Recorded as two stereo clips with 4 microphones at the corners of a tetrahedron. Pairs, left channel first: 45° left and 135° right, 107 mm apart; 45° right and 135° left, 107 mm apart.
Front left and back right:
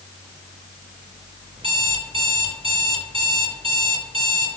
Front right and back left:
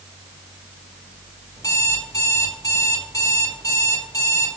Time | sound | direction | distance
1.6 | an alarm clock | 100° right | 2 m